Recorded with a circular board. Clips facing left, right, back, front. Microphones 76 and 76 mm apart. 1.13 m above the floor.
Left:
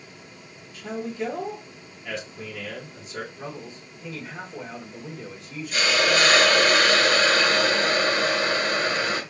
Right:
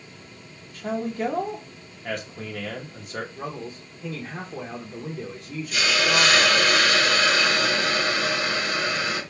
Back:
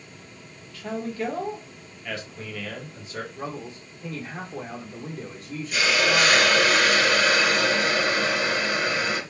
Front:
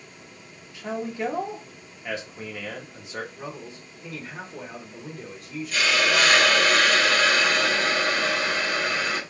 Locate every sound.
0.7 s a man speaking: 65° right, 1.0 m
3.4 s a man speaking: 125° right, 0.8 m
5.7 s a hiss: 105° left, 0.8 m